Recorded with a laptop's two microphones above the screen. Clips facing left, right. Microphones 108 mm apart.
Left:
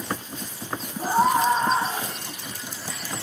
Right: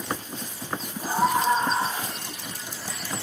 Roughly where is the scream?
Left.